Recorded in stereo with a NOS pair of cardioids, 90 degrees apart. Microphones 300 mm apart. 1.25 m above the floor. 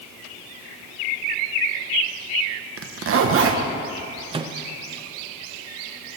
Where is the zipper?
50° right, 1.0 m.